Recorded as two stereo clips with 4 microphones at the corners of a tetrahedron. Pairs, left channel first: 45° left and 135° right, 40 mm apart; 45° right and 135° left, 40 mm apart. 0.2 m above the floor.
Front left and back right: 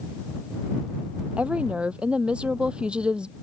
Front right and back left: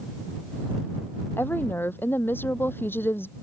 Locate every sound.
1.4 s a woman speaking: 75° right; by 3.3 s 65° right